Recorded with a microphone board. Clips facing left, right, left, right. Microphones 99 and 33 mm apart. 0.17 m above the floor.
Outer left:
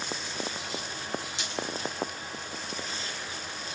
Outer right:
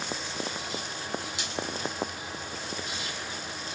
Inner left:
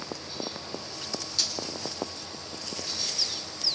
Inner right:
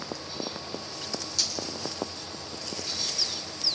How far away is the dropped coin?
About 3.5 m.